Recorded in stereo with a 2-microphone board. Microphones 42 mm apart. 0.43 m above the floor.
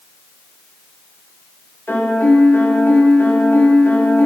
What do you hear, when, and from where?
1.9 s a piano: 65° left (ahead or behind), 0.6 m